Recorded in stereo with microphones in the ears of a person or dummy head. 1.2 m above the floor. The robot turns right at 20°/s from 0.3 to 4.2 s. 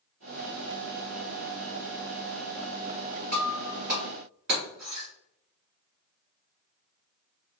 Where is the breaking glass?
35° right (ahead or behind), 1.5 m; by 5.1 s 45° right (ahead or behind), 1.5 m.